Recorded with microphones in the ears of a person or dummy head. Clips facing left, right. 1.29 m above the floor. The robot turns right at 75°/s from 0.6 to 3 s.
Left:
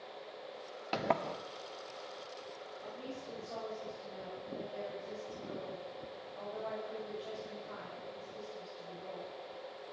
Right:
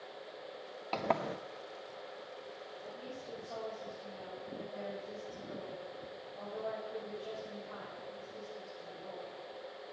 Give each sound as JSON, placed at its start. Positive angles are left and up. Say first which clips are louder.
{"t": 0.9, "sound": "a sliding door", "louder": "even", "azimuth_deg": 165, "distance_m": 0.6}
{"t": 2.8, "sound": "a woman speaking", "louder": "left 2 dB", "side_deg": 25, "distance_m": 8.5}